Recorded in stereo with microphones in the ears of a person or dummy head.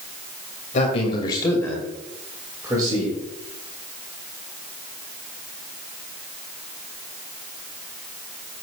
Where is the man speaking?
40° left (ahead or behind), 2.5 m; by 3.2 s 30° right (ahead or behind), 3 m.